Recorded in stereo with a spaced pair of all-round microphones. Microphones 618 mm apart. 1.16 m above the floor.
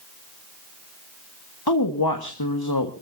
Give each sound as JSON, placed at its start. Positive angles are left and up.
{"t": 1.7, "sound": "a woman speaking", "side_deg": 35, "distance_m": 1.6}